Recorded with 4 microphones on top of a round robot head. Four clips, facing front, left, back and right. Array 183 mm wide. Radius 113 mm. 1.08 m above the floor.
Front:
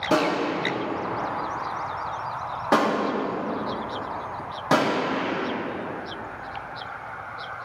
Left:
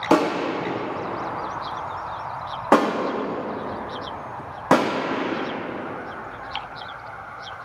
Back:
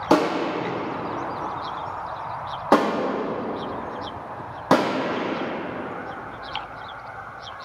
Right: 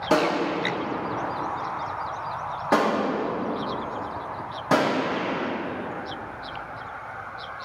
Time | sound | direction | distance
0.1 | a gunshot | 130° left | 0.5 m